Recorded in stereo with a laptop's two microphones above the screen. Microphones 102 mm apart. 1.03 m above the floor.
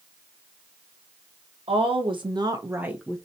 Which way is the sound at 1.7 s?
65° right (ahead or behind).